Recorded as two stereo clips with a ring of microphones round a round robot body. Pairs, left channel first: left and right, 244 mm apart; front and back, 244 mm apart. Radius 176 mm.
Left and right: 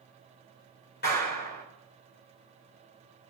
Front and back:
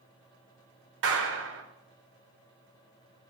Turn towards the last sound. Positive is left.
turn(degrees=150)